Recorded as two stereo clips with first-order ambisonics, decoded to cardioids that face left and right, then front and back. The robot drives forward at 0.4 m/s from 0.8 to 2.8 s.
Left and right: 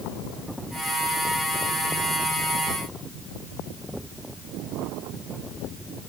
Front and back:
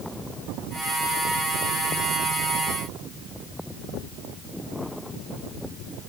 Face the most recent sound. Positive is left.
No sound to turn to.